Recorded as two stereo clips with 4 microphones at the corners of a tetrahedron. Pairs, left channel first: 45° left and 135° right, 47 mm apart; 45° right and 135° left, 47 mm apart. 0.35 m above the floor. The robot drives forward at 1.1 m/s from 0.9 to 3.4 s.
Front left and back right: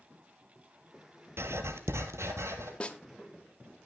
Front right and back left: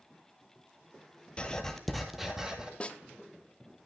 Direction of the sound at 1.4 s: 110° right.